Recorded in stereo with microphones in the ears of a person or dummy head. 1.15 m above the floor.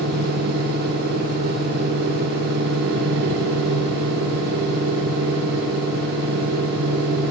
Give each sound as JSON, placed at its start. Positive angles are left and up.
{"t": 0.0, "sound": "a machine running", "side_deg": -70, "distance_m": 2.5}